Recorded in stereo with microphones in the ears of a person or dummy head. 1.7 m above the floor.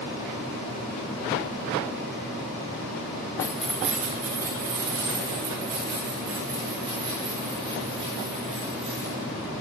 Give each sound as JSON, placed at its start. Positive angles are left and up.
{"t": 3.4, "sound": "keys jangling", "side_deg": 15, "distance_m": 1.1}